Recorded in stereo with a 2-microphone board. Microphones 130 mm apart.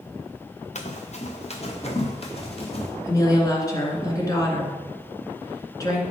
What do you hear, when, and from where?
0.8 s running footsteps: 65° left (ahead or behind), 1.3 m; by 2.9 s 50° left (ahead or behind), 3 m
3.0 s a woman speaking: 30° left (ahead or behind), 1.9 m